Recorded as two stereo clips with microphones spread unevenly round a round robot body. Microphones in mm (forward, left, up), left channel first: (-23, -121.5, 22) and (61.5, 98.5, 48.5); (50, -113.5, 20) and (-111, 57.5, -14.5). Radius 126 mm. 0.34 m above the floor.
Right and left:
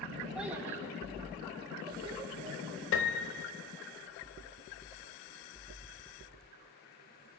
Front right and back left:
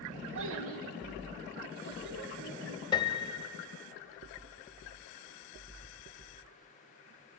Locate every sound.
0.3 s a child speaking: 160° left, 1.1 m; by 2.8 s 135° left, 3 m
2.9 s a piano: 120° right, 0.7 m